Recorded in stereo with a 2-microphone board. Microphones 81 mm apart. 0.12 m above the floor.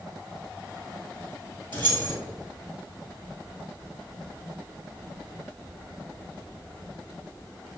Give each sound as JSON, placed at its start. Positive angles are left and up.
{"t": 1.7, "sound": "keys jangling", "side_deg": 25, "distance_m": 1.4}